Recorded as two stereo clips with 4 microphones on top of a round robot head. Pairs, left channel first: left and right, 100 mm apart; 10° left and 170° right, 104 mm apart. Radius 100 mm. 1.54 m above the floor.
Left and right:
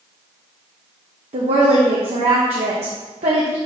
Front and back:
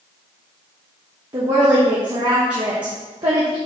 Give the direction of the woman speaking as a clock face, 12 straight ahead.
4 o'clock.